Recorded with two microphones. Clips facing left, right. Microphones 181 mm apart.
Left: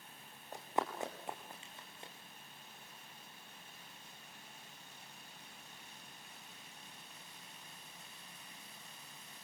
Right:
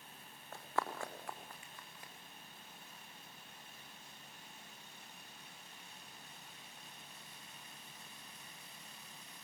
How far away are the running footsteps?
About 4 m.